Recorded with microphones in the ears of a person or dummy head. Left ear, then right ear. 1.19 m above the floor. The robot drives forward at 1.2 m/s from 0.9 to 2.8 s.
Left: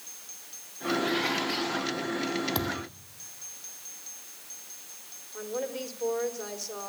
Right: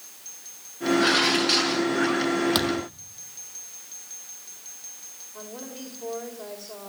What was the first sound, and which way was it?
Dishes clattering, 55° right (ahead or behind).